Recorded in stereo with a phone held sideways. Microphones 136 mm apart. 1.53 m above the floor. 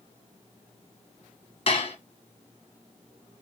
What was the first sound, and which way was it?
Dishes clattering, 45° left (ahead or behind).